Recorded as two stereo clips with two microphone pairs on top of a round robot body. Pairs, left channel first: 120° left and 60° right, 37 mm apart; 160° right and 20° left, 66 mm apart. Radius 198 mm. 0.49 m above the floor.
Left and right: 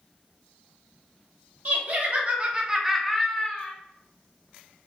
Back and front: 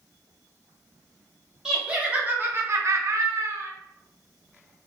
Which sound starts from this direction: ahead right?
Laughter, at 1.6 s.